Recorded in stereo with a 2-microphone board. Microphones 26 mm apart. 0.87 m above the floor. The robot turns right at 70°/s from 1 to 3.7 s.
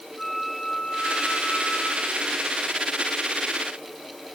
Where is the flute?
10° left, 3 m; by 2.3 s 100° left, 3 m.